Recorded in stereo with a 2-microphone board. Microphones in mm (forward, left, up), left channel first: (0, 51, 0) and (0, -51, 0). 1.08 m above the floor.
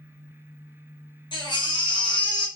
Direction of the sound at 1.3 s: 50° left (ahead or behind).